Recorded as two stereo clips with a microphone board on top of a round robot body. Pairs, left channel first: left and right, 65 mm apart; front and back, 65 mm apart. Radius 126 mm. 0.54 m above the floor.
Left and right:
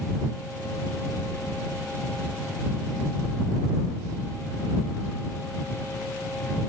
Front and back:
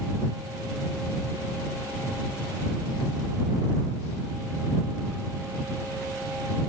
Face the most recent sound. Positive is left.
No sound to turn to.